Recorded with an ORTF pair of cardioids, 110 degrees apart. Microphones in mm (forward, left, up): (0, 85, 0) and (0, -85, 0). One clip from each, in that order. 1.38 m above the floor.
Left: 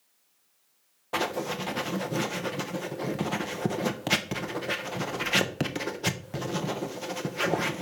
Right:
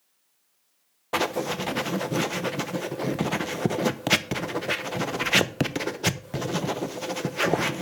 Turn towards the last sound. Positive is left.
turn(degrees=-25)